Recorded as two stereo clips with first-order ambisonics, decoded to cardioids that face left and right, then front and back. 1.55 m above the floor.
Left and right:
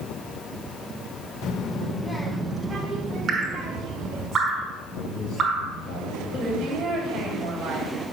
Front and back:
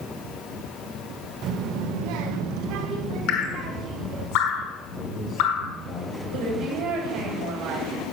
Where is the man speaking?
75° left, 3.5 m.